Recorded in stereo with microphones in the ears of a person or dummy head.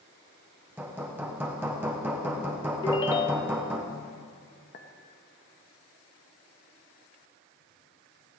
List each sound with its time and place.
0.8 s hammering: 10° right (ahead or behind), 1.2 m
2.8 s a ringtone: 20° left (ahead or behind), 0.7 m
4.7 s a clink: 45° left (ahead or behind), 1.8 m